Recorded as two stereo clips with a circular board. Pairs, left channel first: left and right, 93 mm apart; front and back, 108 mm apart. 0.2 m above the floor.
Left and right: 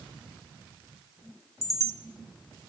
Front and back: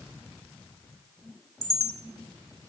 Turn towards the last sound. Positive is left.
turn(degrees=-45)